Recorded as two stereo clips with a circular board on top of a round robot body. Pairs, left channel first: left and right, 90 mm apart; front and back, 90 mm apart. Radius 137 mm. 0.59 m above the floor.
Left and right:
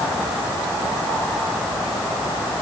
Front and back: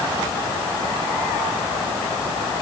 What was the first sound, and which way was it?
Only background noise.